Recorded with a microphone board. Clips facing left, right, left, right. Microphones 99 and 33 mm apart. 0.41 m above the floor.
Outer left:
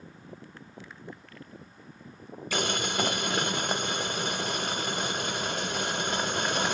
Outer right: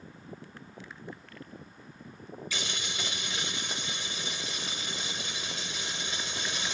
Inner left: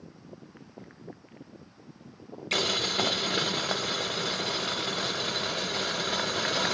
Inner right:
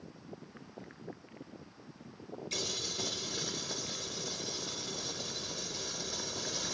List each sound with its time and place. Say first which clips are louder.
2.5 s boiling: outer left 11 dB, inner left 12 dB; 50° left (ahead or behind), 0.6 m